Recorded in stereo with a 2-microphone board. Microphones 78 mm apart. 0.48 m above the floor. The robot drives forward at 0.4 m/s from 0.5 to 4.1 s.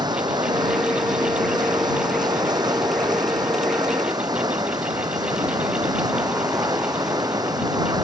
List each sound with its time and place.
0.0 s running water: 75° right (ahead or behind); by 8.0 s 70° right (ahead or behind)